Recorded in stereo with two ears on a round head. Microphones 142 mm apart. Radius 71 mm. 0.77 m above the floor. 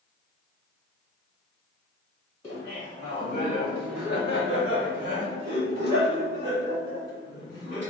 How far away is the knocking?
No knocking in this recording.